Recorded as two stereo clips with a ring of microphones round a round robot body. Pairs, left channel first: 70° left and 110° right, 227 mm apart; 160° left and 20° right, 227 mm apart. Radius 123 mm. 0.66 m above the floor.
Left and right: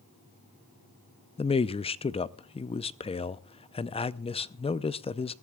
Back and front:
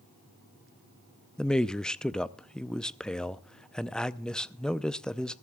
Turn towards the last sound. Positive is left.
turn(degrees=75)